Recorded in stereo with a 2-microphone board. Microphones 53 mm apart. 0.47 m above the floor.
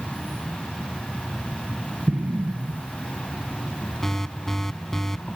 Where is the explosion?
30° right (ahead or behind).